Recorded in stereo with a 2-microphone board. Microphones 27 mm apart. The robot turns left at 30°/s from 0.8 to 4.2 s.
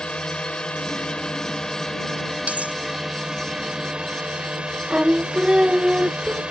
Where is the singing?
40° right (ahead or behind).